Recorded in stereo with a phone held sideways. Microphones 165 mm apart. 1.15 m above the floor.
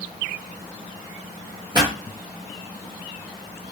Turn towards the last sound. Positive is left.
turn(degrees=-25)  # may be behind; listen again after turning